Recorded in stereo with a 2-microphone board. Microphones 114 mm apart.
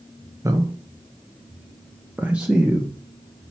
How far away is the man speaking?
About 1.2 m.